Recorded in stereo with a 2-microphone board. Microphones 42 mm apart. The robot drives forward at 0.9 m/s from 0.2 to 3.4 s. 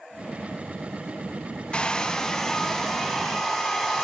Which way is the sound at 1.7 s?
20° left (ahead or behind).